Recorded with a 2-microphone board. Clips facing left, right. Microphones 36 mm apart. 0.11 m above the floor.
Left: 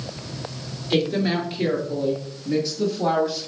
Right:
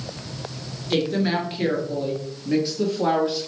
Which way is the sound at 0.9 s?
Centre (ahead or behind).